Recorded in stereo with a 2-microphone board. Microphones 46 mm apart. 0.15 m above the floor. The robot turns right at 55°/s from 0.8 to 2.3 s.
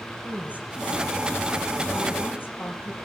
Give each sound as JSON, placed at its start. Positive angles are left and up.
{"t": 0.2, "sound": "a woman speaking", "side_deg": -30, "distance_m": 4.5}